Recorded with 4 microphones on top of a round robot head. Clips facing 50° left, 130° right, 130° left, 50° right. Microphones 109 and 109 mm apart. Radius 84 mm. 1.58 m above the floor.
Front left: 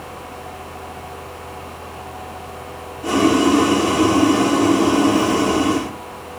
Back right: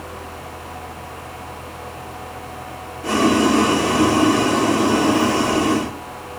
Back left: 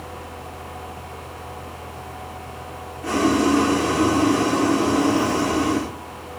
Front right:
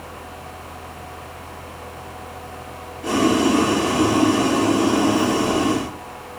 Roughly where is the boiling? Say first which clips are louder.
Front left 1 dB, front right 1 dB; ahead.